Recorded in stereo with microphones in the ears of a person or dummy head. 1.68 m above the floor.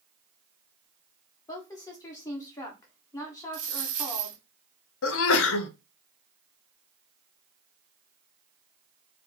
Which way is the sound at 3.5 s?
45° right (ahead or behind).